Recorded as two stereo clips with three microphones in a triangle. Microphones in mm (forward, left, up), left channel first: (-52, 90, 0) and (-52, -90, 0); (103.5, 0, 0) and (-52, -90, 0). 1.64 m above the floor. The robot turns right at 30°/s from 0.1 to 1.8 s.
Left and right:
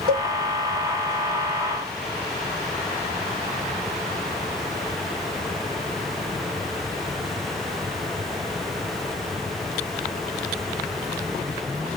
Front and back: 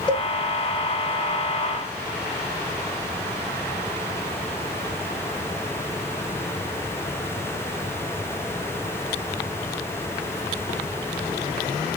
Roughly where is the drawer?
No drawer in this recording.